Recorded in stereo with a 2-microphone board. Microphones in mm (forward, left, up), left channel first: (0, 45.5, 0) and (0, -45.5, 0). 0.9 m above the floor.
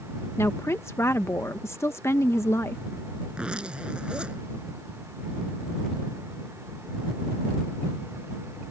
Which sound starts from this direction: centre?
A zipper, at 3.3 s.